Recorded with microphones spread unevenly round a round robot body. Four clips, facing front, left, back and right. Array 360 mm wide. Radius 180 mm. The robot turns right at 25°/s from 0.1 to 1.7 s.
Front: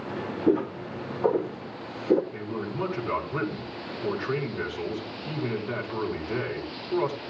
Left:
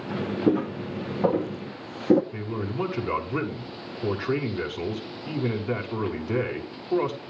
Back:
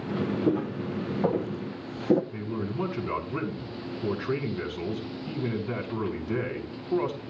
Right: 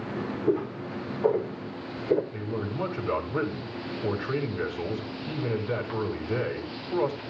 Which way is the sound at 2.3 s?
125° left.